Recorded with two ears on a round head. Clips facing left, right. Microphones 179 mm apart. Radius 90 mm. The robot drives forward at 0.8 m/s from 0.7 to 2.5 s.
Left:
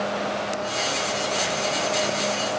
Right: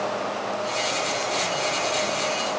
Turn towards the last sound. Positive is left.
No sound to turn to.